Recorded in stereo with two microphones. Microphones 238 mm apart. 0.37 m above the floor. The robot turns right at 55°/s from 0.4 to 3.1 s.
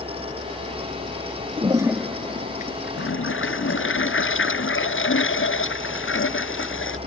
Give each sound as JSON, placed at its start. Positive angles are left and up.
{"t": 1.6, "sound": "a toilet flushing", "azimuth_deg": -25}